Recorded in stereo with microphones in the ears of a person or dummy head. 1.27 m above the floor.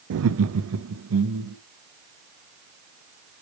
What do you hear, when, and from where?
0.1 s laughter: 70° right (ahead or behind), 0.5 m; by 1.6 s 85° right, 1.4 m